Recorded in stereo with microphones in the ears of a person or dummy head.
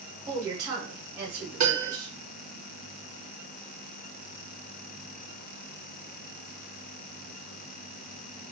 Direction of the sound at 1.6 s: 55° right (ahead or behind).